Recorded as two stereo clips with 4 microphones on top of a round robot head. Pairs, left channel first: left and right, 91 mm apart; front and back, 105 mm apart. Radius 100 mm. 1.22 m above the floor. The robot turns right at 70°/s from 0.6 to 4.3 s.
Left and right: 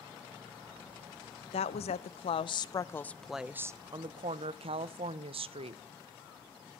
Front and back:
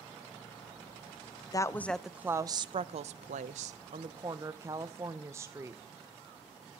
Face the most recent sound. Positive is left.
turn(degrees=-110)